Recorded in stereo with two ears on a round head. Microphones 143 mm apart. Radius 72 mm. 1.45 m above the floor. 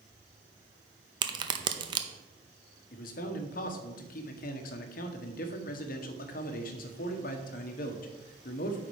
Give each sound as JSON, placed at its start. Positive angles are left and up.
{"t": 1.2, "sound": "a crack", "side_deg": -30, "distance_m": 0.7}
{"t": 2.9, "sound": "a man speaking", "side_deg": 60, "distance_m": 1.1}